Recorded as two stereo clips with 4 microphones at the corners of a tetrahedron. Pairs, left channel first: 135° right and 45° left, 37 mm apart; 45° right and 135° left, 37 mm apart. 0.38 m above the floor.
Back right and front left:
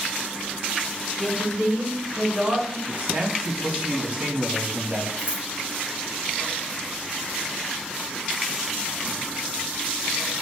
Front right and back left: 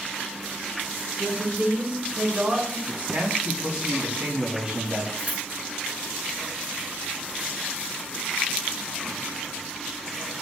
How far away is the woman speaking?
About 3 m.